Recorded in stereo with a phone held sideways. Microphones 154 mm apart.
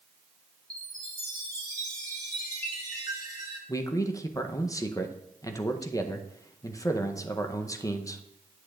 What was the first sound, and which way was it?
A chime, 25° right (ahead or behind).